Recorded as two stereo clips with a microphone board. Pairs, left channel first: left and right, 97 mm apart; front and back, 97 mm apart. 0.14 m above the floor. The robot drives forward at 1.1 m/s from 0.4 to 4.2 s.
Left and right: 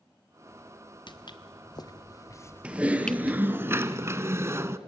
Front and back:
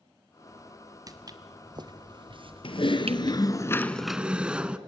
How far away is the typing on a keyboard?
About 1.8 m.